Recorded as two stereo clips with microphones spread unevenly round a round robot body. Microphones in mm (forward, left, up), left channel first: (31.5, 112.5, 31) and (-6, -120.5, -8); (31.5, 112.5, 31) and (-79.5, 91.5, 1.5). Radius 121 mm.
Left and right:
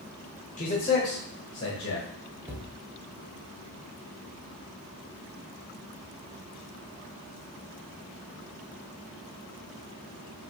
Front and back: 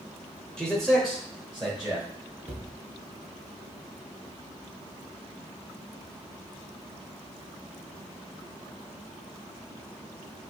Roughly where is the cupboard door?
Behind.